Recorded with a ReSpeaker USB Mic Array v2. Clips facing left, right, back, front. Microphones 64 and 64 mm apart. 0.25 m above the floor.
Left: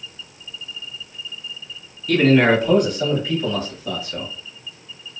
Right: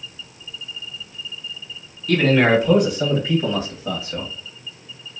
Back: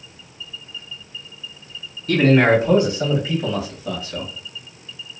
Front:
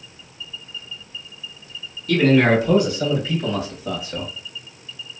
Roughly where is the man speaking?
Behind.